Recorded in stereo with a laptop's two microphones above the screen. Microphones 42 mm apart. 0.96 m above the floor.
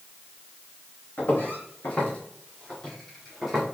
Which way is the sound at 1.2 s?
50° left (ahead or behind).